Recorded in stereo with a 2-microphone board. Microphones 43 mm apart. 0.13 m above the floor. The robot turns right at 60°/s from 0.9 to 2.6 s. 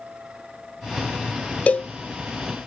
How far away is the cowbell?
About 0.6 m.